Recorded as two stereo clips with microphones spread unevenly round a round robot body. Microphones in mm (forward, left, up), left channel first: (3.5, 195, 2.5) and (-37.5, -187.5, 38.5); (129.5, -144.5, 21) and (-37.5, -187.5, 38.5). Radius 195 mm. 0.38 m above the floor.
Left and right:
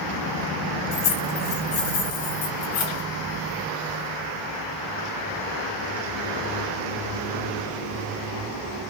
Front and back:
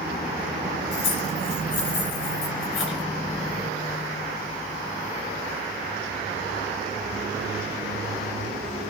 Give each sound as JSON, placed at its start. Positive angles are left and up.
{"t": 0.9, "sound": "keys jangling", "azimuth_deg": 25, "distance_m": 2.5}